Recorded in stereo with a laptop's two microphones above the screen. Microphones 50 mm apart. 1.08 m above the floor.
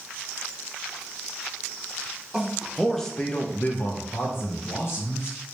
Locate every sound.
2.3 s a man speaking: 10° right (ahead or behind), 0.9 m; by 5.4 s 60° left (ahead or behind), 1.4 m